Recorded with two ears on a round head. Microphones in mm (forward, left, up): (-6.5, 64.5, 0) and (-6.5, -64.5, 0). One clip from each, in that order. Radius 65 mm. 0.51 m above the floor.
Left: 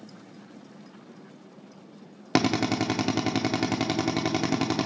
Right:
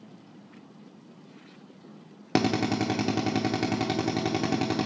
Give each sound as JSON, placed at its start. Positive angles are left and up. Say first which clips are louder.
{"t": 2.4, "sound": "a drill", "louder": "left 1 dB", "side_deg": 25, "distance_m": 0.6}